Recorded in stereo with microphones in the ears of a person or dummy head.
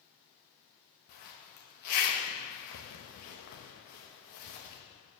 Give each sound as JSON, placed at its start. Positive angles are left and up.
{"t": 1.1, "sound": "a zipper", "side_deg": 40, "distance_m": 1.1}